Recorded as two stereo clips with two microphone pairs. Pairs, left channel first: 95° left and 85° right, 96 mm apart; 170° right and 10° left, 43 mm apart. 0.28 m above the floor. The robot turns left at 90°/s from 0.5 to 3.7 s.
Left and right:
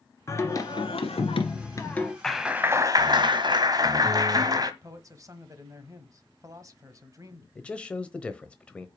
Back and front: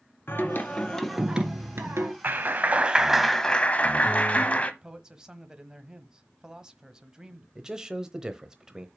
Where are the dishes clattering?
No dishes clattering in this recording.